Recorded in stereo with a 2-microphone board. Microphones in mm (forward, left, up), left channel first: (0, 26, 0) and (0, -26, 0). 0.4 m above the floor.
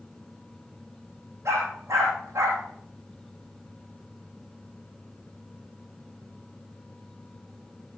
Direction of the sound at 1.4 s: 70° right (ahead or behind).